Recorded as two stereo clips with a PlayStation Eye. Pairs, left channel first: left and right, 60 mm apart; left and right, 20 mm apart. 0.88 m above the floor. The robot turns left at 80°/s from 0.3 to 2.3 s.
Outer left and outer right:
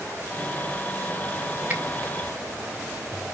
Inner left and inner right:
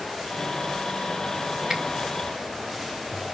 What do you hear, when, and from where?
1.7 s a finger snap: 25° right (ahead or behind), 1.8 m; by 1.8 s 35° right (ahead or behind), 1.8 m